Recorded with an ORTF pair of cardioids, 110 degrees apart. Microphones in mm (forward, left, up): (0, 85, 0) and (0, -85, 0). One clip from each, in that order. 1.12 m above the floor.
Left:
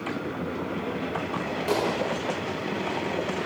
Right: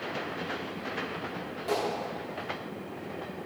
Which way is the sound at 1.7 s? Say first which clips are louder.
Left 4 dB; 45° left.